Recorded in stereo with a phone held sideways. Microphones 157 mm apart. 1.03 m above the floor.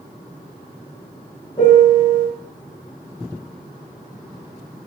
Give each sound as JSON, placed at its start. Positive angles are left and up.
{"t": 1.6, "sound": "a piano", "side_deg": 30, "distance_m": 1.2}